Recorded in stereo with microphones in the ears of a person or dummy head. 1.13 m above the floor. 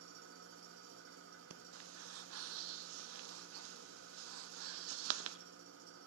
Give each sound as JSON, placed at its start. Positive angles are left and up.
{"t": 0.0, "sound": "an engine running", "side_deg": -65, "distance_m": 1.1}
{"t": 1.5, "sound": "breathing", "side_deg": -75, "distance_m": 0.8}